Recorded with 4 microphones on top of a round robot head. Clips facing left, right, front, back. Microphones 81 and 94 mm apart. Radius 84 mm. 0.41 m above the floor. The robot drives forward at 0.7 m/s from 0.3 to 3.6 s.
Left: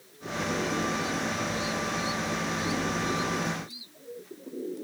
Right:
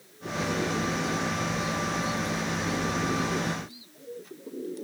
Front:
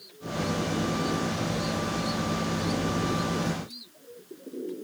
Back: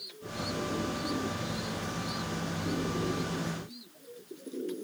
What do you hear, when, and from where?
Only background noise.